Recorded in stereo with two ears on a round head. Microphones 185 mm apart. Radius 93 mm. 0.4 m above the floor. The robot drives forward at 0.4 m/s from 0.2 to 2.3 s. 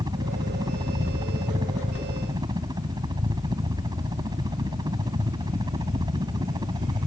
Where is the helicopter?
20° right (ahead or behind).